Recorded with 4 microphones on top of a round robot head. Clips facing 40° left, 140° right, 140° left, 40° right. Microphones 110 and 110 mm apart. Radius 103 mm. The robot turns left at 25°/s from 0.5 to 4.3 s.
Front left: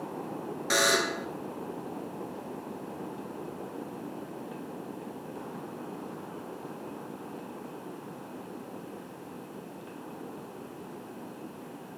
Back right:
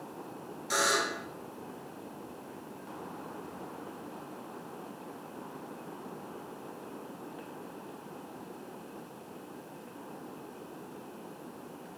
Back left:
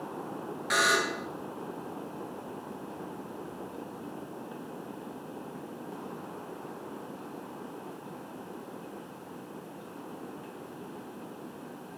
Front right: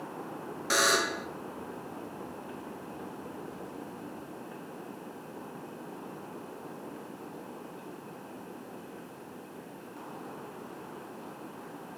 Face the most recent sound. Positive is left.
turn(degrees=-75)